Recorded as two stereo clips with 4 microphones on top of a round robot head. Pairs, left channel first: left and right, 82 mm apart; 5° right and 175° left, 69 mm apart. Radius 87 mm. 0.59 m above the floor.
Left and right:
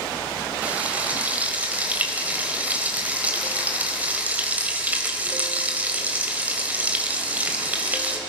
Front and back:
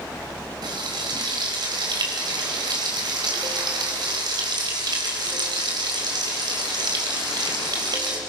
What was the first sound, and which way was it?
Frying, 160° right.